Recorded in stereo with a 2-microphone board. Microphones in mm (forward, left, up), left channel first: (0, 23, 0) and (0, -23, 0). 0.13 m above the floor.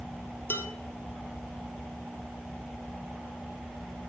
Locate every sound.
0.5 s dishes clattering: 55° left (ahead or behind), 2 m